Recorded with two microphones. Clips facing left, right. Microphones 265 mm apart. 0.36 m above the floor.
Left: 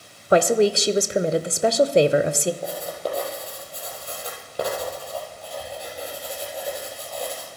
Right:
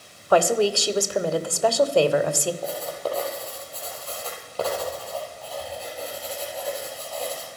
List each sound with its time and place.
0.3 s a woman speaking: 20° left (ahead or behind), 0.8 m
2.6 s writing: 15° left (ahead or behind), 4 m